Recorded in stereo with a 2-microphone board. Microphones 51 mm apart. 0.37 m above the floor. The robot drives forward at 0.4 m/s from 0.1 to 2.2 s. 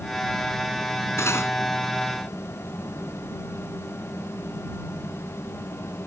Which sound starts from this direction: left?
Cutlery clinking, at 1.2 s.